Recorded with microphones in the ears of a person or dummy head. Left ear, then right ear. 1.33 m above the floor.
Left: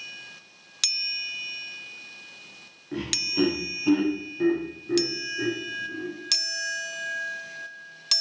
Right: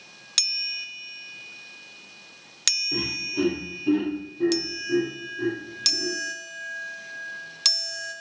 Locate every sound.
2.9 s laughter: 10° left (ahead or behind), 0.9 m; by 6.1 s 85° left, 1.7 m